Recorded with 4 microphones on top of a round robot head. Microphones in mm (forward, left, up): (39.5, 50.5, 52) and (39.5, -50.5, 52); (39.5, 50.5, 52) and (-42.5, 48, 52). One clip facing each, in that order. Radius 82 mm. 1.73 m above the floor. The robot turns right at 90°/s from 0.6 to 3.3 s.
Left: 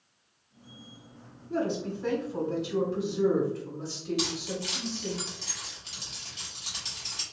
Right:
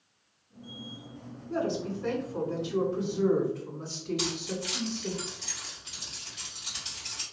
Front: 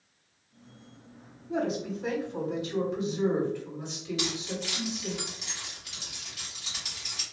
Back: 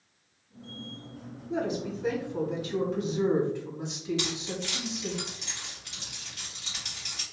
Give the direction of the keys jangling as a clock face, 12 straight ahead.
9 o'clock.